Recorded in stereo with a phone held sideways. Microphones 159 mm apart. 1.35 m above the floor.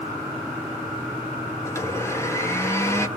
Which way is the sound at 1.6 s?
20° left (ahead or behind).